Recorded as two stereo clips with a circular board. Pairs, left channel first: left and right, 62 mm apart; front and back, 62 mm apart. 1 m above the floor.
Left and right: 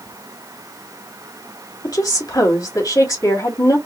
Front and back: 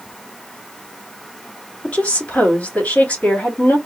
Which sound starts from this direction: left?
A woman speaking, at 1.8 s.